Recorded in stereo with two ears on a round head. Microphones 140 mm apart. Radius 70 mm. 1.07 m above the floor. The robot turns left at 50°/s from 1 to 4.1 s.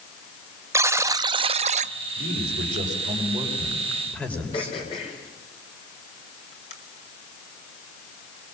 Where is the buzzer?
20° right, 0.5 m; by 1.9 s 70° right, 0.5 m.